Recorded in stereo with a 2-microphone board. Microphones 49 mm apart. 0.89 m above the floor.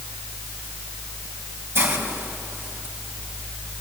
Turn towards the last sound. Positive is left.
turn(degrees=-55)  # may be behind; listen again after turning